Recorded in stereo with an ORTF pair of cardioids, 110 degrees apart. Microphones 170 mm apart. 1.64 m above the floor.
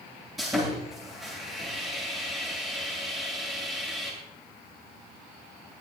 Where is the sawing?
Straight ahead, 9 m.